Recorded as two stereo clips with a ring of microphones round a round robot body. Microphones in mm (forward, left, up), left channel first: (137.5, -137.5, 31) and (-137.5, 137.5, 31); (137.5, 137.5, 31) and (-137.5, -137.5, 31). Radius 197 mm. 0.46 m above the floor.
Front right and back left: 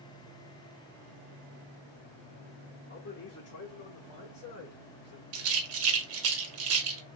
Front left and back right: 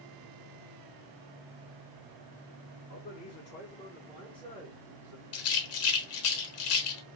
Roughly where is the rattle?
Left.